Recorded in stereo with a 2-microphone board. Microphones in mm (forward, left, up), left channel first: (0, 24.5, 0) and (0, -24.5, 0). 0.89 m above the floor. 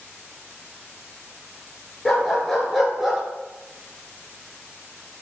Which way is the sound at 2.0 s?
5° left (ahead or behind).